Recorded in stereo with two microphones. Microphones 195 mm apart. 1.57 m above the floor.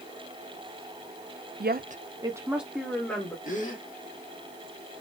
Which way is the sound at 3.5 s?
40° left (ahead or behind).